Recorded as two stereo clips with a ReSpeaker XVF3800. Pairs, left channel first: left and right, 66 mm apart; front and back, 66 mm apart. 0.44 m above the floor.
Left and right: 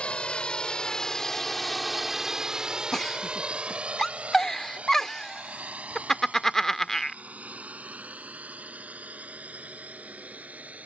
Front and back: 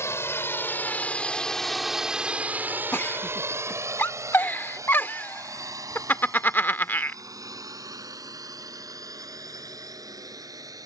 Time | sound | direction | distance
0.0 | a drone | 20° left | ?
2.9 | a giggle | 15° left | ?